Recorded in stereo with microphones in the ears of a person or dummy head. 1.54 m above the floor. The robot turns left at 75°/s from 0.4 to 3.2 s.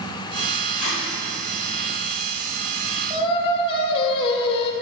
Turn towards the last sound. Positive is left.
turn(degrees=35)  # may be behind; listen again after turning